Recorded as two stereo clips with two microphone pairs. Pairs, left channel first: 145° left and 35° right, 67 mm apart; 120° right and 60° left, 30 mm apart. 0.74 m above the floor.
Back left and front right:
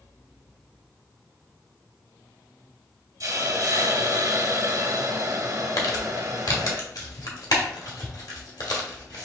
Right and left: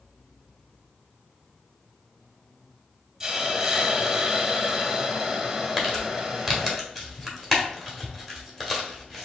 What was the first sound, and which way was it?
A hiss, 20° right.